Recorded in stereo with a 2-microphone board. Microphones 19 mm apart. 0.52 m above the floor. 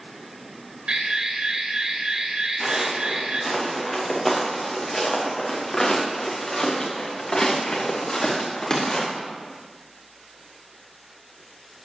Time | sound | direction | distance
0.9 | an alarm | 65° right (ahead or behind) | 1.9 m
2.6 | footsteps | 5° right (ahead or behind) | 4 m